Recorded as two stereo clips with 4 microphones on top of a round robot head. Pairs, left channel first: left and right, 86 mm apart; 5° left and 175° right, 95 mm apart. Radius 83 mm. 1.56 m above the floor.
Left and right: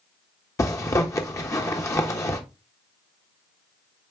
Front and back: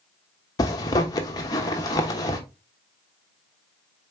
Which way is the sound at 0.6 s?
40° left.